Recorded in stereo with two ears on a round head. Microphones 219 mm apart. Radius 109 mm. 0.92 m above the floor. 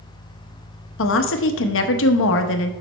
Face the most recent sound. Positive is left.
turn(degrees=55)  # may be behind; listen again after turning